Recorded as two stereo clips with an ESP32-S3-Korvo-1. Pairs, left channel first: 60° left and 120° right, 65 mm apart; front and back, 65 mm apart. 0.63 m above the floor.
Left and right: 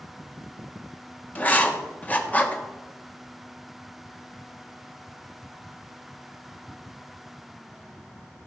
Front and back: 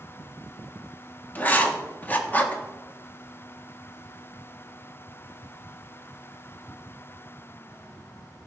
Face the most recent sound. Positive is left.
turn(degrees=30)